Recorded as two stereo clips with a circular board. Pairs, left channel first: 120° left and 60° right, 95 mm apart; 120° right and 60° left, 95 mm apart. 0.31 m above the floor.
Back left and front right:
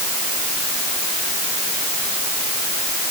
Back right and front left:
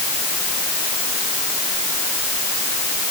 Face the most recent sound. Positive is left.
No sound to turn to.